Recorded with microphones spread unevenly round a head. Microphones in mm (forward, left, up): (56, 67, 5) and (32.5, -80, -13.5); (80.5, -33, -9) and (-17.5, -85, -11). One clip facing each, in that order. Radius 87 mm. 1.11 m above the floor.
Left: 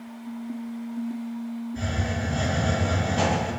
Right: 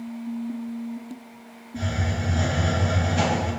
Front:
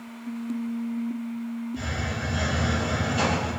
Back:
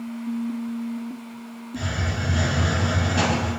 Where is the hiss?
145° right, 1.8 m.